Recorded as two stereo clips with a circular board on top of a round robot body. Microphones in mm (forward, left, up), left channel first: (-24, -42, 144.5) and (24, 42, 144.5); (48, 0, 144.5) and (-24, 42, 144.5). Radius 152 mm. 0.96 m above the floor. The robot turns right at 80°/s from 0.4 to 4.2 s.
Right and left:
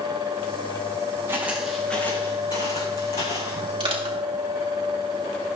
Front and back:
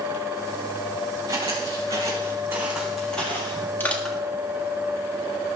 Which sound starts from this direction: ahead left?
Crushing, at 3.8 s.